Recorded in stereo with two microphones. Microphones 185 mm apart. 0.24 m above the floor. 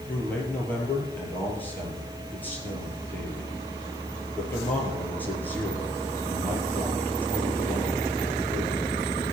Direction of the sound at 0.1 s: 10° left (ahead or behind).